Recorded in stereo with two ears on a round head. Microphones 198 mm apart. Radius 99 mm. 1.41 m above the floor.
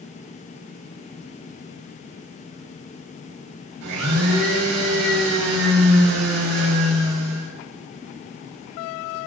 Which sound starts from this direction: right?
A blender, at 3.8 s.